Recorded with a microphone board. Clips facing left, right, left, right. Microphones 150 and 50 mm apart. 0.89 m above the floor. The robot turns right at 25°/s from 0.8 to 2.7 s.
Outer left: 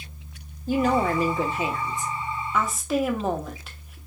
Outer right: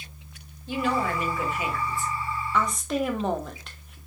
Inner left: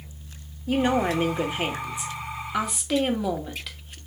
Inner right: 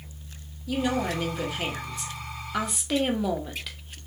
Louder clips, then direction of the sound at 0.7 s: Outer left 5 dB, inner left 4 dB; 130° left.